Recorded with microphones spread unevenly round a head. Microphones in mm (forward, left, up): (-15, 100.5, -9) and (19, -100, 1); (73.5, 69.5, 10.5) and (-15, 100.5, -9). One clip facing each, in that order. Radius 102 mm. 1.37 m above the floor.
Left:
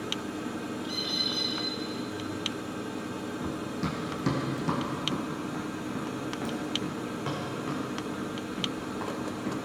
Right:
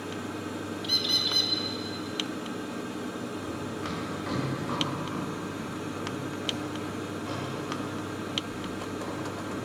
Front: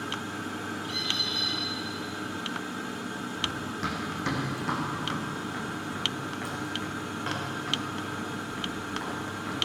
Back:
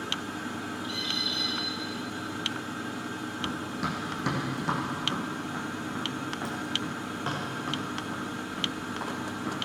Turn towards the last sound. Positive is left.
turn(degrees=110)